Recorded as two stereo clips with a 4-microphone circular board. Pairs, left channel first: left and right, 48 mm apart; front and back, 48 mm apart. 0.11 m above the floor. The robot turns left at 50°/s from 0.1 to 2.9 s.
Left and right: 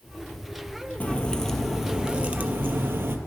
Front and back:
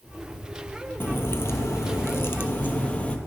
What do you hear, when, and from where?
1.0 s a crack: 35° left, 0.5 m; by 3.2 s 60° right, 0.5 m